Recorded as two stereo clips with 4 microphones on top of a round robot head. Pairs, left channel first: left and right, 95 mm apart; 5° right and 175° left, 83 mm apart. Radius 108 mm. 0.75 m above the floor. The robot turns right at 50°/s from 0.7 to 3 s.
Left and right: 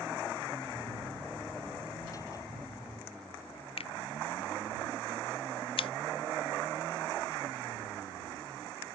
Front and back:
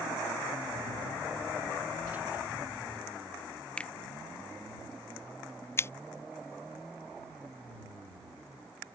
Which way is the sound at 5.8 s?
60° left.